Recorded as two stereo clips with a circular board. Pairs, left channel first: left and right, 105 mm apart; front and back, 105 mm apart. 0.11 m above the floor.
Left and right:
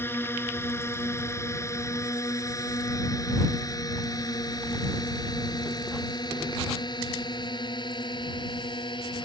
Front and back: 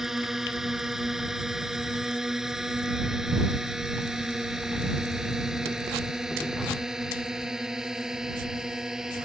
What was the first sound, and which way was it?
A drone, 100° left.